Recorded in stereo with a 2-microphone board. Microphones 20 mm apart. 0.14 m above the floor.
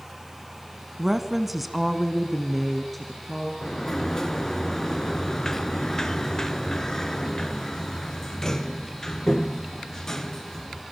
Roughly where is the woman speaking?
Centre.